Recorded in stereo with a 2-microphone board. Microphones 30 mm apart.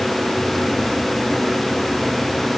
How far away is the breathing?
I don't hear breathing.